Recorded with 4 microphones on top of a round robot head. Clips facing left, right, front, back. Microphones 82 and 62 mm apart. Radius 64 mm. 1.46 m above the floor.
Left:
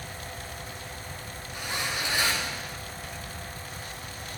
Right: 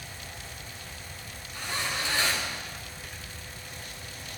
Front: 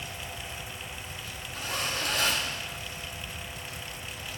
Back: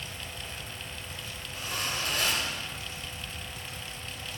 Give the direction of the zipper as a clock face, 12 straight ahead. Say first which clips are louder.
Even, front 2 dB; 11 o'clock.